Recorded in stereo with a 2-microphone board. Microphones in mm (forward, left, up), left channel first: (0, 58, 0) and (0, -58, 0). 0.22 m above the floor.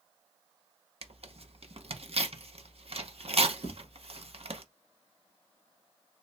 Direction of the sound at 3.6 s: 75° right (ahead or behind).